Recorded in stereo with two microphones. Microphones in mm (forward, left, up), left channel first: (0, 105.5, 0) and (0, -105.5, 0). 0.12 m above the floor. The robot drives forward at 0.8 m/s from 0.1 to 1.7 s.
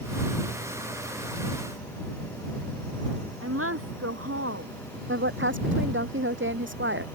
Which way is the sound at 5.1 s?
60° right (ahead or behind).